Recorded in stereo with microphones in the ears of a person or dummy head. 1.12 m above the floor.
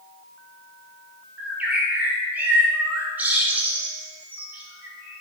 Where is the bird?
5° right (ahead or behind), 4.5 m.